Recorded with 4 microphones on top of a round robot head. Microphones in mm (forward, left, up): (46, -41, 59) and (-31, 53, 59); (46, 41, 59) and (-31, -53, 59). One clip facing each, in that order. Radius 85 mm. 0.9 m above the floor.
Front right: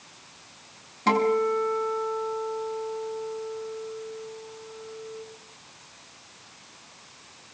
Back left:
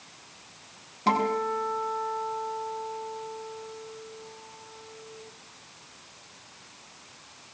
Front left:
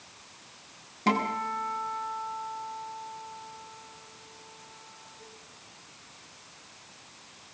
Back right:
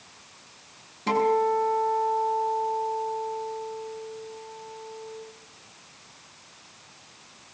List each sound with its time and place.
1.1 s a guitar: 45° left, 7 m